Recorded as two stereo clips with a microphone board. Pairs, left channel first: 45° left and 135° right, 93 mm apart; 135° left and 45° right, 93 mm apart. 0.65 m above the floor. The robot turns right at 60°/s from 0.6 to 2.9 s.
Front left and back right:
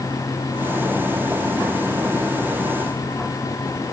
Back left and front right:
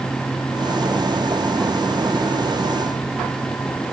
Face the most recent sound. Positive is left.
No sound to turn to.